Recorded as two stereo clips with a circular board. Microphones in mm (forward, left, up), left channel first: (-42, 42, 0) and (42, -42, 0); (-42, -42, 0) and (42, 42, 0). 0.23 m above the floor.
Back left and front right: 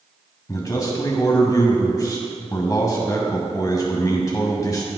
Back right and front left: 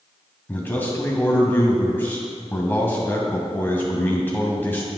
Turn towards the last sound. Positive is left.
turn(degrees=165)